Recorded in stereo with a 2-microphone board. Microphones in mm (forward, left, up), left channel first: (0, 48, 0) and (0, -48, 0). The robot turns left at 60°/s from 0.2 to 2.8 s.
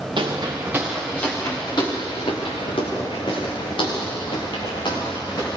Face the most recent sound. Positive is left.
turn(degrees=50)  # may be behind; listen again after turning